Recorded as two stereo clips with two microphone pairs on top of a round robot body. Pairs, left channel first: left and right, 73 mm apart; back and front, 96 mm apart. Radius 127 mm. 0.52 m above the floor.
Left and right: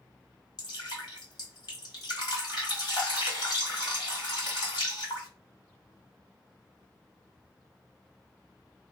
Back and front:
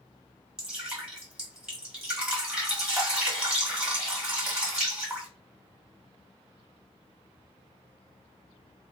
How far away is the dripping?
About 1.9 m.